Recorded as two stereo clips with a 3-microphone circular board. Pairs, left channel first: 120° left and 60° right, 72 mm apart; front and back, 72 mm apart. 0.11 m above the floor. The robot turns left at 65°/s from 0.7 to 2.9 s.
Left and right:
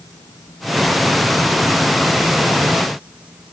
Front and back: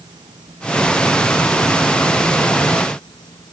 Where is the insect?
160° left; by 3.5 s 15° left.